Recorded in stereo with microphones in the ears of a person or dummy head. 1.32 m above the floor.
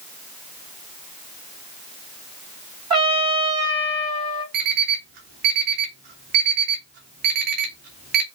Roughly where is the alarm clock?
Right.